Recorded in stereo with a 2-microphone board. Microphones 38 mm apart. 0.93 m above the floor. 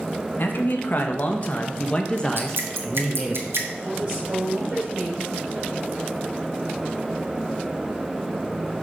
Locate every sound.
0.4 s a man speaking: 55° left (ahead or behind), 1.5 m; by 3.4 s 10° right (ahead or behind), 1.1 m
2.4 s dripping: 70° right (ahead or behind), 1.5 m
3.8 s a woman speaking: 35° right (ahead or behind), 4 m